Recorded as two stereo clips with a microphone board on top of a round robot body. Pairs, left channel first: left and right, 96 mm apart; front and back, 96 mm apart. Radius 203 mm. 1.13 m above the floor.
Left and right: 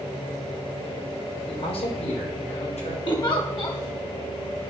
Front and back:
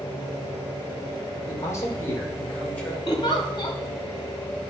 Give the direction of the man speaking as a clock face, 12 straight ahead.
10 o'clock.